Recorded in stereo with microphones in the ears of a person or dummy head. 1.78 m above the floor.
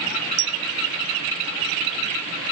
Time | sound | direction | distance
0.4 | a clink | 70° right (ahead or behind) | ?